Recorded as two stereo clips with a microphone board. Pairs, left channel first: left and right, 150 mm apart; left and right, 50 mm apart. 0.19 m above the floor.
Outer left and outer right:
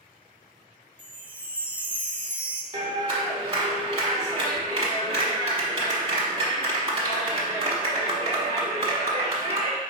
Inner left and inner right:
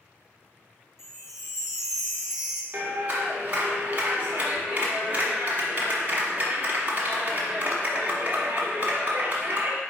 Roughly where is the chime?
Centre.